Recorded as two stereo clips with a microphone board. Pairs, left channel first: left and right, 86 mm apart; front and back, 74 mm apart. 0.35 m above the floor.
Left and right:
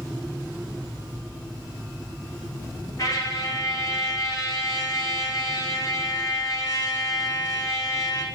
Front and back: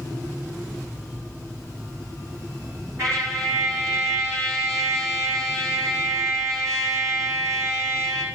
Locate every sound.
3.0 s a trumpet: 140° left, 5 m